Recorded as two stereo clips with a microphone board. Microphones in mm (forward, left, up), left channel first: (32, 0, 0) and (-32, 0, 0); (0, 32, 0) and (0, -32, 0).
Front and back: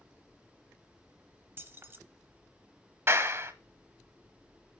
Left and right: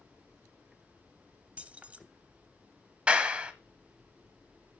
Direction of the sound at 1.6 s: 150° right.